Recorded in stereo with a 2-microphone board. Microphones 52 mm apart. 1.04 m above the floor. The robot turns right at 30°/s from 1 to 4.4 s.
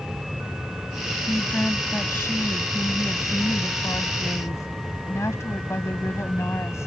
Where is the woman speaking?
20° left; by 6.9 s 115° left.